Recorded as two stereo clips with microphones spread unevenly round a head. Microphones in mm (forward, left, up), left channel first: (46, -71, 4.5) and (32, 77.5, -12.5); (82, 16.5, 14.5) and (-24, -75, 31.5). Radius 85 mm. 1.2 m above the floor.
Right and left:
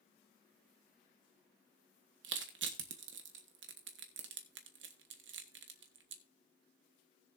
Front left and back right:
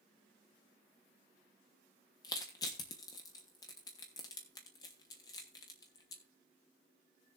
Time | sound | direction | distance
2.2 | crushing | 110° left | 1.2 m